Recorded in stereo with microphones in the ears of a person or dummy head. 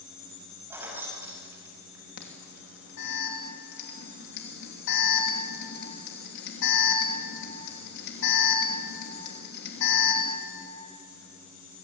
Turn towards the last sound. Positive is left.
turn(degrees=70)  # may be behind; listen again after turning